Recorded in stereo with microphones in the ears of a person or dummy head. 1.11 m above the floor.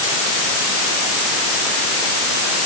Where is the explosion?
No explosion in this recording.